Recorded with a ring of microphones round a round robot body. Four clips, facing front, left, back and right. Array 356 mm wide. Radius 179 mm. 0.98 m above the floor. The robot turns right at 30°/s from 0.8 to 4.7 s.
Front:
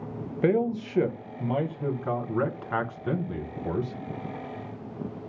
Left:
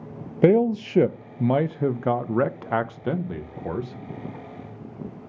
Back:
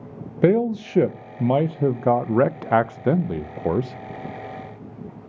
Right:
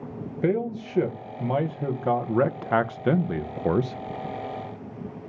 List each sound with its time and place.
0.4 s a man speaking: 130° left, 0.6 m; by 4.0 s 135° right, 0.6 m